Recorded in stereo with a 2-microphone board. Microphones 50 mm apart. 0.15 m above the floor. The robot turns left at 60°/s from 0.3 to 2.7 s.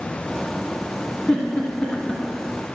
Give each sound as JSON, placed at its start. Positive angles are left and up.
{"t": 1.3, "sound": "a giggle", "side_deg": 15, "distance_m": 1.6}